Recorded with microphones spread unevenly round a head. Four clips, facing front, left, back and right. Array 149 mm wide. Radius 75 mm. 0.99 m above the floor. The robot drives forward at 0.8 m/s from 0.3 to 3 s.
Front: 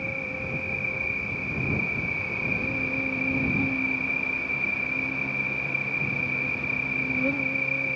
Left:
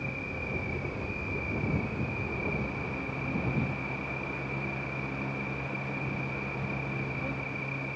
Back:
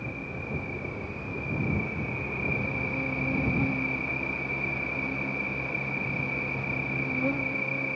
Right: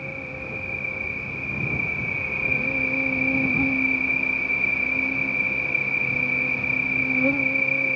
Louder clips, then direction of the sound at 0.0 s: Right 2 dB, front 3 dB; 35° right.